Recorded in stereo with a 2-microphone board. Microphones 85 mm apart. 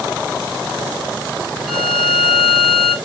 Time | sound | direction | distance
1.7 | a violin | 5° right (ahead or behind) | 3.5 m